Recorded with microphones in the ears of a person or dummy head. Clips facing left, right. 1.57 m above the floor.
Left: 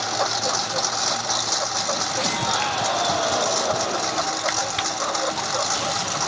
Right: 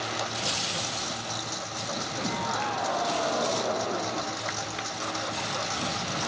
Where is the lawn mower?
75° left (ahead or behind); by 6.3 s 65° left (ahead or behind).